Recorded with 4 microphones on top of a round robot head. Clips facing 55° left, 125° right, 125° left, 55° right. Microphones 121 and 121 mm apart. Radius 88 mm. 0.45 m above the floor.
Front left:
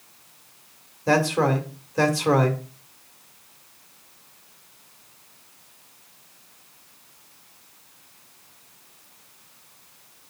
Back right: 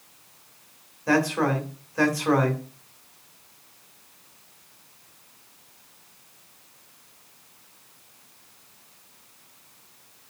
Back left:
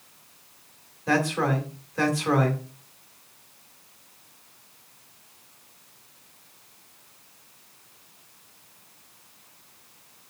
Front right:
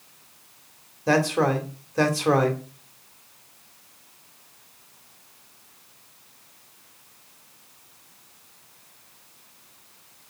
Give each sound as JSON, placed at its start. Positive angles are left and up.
{"t": 1.1, "sound": "a man speaking", "azimuth_deg": -5, "distance_m": 2.5}